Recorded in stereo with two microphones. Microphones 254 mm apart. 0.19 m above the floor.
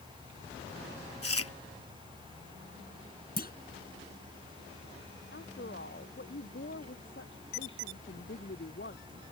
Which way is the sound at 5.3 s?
50° left (ahead or behind).